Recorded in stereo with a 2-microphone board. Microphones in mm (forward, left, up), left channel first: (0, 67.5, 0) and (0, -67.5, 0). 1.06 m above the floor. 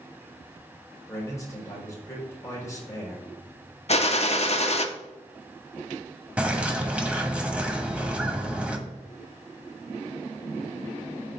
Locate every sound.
1.1 s a man speaking: 25° left (ahead or behind), 4 m
3.9 s a gunshot: 50° left (ahead or behind), 0.8 m
6.4 s a bird: 10° right (ahead or behind), 1.1 m